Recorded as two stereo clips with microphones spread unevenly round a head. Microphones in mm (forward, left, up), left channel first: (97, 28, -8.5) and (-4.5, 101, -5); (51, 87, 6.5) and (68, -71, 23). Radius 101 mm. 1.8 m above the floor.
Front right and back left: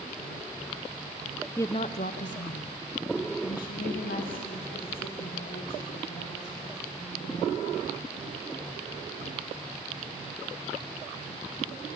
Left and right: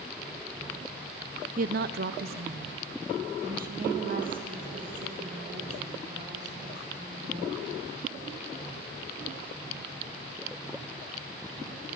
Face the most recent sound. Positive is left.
turn(degrees=-50)